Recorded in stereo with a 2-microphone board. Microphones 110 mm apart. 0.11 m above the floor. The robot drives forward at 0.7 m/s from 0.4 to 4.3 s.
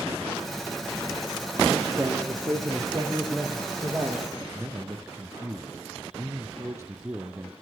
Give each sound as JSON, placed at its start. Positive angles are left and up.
{"t": 2.0, "sound": "a man speaking", "side_deg": -30, "distance_m": 4.0}
{"t": 4.5, "sound": "a man speaking", "side_deg": -30, "distance_m": 2.5}